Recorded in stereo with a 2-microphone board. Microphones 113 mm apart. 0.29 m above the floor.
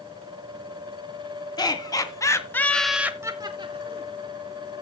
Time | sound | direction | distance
1.6 | laughter | 40° left (ahead or behind) | 2.5 m